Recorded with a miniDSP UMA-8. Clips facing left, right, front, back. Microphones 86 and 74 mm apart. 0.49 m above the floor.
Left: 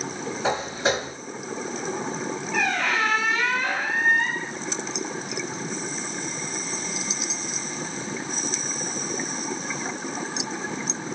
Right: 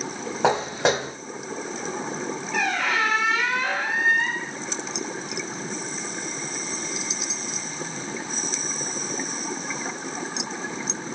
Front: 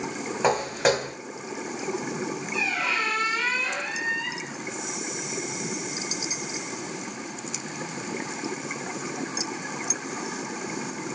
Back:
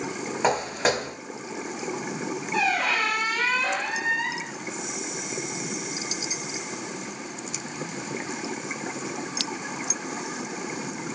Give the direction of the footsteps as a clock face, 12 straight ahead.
3 o'clock.